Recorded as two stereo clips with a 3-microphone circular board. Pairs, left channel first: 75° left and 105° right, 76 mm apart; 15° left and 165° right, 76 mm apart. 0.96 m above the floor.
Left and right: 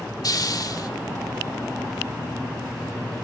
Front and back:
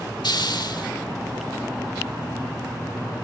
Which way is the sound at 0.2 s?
40° left.